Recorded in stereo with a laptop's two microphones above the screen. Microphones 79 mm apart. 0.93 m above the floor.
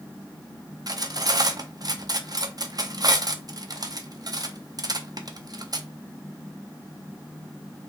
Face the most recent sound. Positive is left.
turn(degrees=-55)  # may be behind; listen again after turning